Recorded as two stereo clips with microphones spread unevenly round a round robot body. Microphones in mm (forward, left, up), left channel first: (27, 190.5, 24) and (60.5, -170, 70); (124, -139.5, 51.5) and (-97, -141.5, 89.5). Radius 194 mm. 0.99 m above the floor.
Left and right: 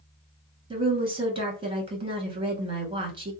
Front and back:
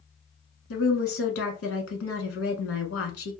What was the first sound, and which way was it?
A woman speaking, 10° right.